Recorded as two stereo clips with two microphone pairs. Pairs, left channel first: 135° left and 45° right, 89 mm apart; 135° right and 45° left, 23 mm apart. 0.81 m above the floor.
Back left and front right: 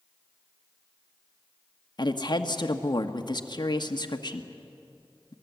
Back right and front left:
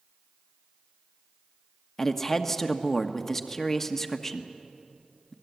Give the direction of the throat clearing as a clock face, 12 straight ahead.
I don't hear throat clearing.